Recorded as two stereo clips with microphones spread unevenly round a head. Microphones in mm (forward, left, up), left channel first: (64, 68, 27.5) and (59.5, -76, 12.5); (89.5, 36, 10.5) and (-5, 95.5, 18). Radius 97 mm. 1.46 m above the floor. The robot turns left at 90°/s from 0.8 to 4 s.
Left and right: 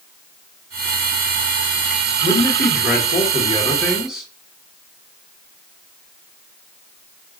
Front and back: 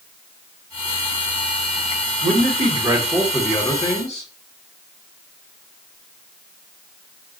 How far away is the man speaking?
About 2 m.